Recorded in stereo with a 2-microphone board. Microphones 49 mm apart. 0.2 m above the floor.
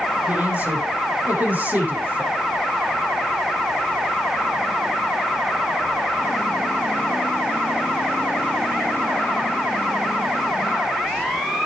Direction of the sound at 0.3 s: 35° right (ahead or behind).